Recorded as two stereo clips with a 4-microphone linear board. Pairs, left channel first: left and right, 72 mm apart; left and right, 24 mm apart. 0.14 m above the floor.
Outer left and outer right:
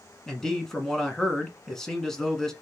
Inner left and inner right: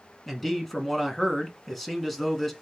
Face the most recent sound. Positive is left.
turn(degrees=5)  # may be behind; listen again after turning